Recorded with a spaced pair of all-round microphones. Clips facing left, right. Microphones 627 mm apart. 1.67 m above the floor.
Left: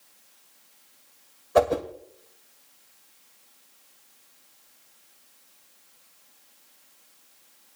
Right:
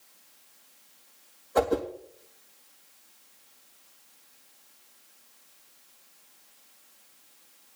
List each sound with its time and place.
1.6 s a whoosh: 75° left (ahead or behind), 2.0 m